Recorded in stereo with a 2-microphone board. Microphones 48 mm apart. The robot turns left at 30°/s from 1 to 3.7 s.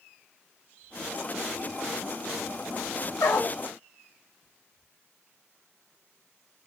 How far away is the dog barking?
About 1.3 m.